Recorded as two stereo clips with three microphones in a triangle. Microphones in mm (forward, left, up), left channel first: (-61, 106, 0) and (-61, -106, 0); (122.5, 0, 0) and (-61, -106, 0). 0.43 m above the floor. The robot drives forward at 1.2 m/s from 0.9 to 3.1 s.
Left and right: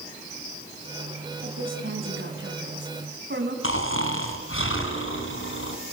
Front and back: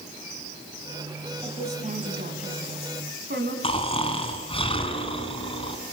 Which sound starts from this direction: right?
A woman speaking, at 1.4 s.